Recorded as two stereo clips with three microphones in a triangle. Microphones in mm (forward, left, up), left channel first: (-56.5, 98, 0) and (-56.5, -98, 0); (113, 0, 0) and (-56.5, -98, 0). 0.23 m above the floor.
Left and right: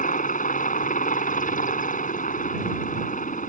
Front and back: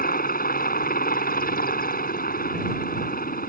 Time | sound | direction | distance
0.0 | a helicopter | 55° left | ?